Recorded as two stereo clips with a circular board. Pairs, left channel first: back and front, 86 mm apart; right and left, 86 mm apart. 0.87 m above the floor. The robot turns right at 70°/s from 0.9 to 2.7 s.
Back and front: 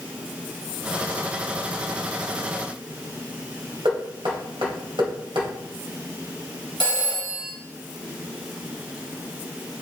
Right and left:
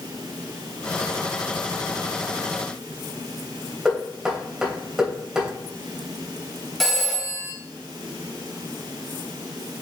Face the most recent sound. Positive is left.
turn(degrees=0)